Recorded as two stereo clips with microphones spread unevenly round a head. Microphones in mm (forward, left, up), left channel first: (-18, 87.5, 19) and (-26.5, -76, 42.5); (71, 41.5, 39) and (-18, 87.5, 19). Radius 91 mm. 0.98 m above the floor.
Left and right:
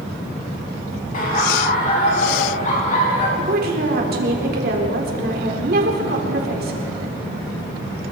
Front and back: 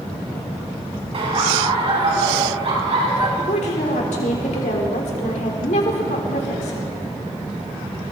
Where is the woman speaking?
55° right, 3.5 m.